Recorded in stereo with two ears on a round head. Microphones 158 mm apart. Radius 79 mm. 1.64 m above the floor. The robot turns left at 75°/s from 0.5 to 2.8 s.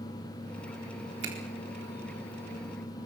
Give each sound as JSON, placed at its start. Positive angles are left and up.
{"t": 1.2, "sound": "a finger snap", "side_deg": -70, "distance_m": 4.0}